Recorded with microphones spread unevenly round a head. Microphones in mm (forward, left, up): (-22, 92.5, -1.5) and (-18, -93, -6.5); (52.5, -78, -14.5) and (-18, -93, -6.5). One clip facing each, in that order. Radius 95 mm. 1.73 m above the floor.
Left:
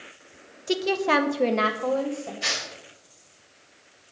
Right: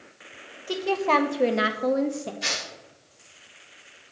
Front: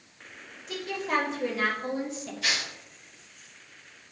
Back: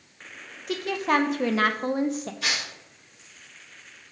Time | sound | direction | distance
0.7 | a woman speaking | 150° left | 0.8 m
2.4 | tearing paper | 160° right | 4.5 m